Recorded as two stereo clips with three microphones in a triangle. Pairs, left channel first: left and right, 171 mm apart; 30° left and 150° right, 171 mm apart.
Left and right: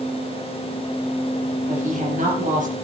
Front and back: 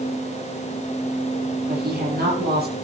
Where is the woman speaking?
130° right, 5.5 m.